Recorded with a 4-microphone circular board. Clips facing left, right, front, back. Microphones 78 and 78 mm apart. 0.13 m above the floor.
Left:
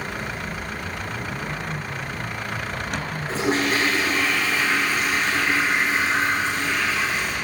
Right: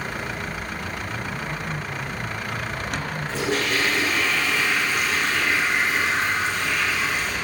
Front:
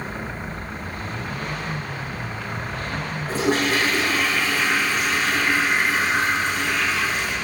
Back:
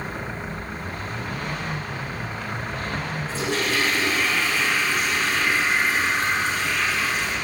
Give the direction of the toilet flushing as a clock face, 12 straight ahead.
11 o'clock.